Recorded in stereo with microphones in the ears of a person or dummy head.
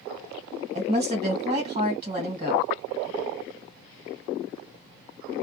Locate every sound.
0.7 s a woman speaking: 30° right (ahead or behind), 1.3 m